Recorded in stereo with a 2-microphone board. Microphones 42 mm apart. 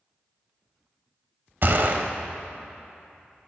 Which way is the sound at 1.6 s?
55° right (ahead or behind).